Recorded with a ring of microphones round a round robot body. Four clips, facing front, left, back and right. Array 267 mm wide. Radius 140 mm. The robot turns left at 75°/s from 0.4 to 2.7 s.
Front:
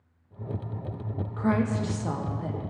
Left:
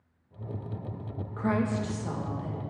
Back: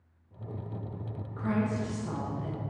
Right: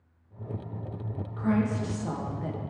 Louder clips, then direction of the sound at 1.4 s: Right 1 dB, front 4 dB; 45° left.